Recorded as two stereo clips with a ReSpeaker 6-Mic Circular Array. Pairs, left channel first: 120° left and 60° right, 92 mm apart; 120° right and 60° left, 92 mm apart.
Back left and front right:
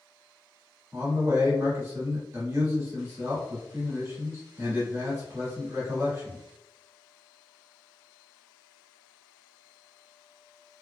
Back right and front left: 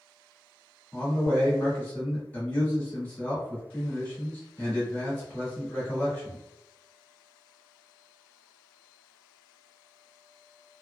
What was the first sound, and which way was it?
A man speaking, 70° right.